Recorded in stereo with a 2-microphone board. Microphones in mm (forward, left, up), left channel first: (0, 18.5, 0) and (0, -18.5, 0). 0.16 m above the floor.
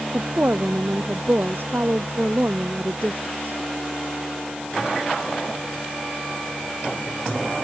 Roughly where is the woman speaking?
Right.